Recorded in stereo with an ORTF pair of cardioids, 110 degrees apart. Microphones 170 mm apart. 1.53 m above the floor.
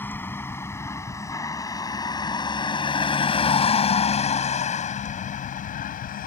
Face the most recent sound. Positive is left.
turn(degrees=60)